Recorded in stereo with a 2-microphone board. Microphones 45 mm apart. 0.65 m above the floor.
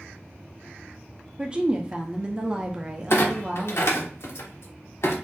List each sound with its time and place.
1.4 s a woman speaking: 25° right (ahead or behind), 0.5 m
3.1 s a clunk: 70° left (ahead or behind), 0.6 m